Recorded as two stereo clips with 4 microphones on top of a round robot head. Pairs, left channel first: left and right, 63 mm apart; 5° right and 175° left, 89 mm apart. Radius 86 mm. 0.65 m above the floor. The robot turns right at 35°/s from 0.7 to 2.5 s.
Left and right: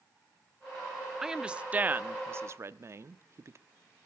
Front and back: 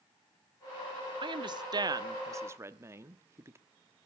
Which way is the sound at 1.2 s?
170° right.